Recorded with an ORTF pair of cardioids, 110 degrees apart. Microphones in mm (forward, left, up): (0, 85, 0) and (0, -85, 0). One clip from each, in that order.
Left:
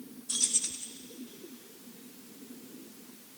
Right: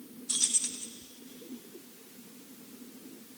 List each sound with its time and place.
0.3 s keys jangling: 10° right, 0.7 m